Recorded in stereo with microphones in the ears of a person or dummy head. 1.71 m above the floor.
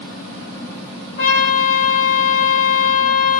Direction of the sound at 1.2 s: 30° left (ahead or behind).